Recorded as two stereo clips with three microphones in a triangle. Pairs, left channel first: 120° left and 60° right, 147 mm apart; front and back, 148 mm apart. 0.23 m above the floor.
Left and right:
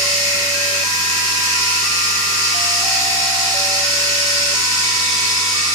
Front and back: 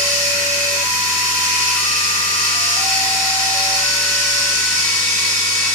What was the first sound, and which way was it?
Running water, straight behind.